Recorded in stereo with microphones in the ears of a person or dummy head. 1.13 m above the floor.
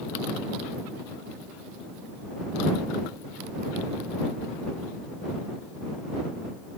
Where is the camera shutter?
I don't hear a camera shutter.